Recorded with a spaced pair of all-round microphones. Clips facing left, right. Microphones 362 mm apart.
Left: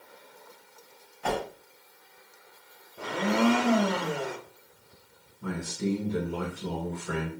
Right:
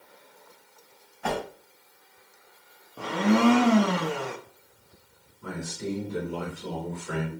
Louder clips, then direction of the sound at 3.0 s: Right 4 dB; 80° right.